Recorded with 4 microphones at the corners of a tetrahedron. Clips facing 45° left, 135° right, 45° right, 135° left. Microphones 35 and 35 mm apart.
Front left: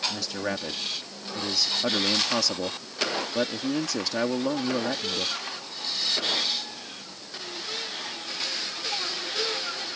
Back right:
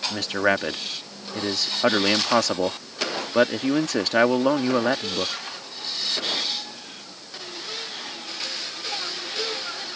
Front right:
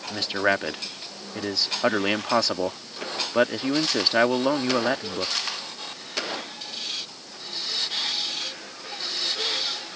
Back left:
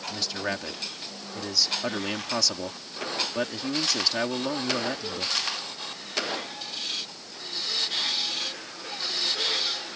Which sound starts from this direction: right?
A man speaking, at 0.1 s.